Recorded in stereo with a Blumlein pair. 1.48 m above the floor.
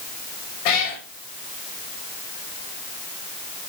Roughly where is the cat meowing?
Ahead left.